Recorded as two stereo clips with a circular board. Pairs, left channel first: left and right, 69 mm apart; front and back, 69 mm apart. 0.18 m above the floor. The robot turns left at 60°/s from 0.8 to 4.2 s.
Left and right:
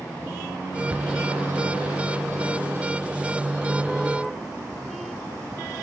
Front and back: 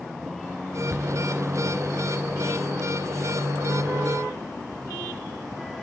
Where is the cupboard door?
145° right, 1.2 m; by 1.1 s 155° right, 1.2 m.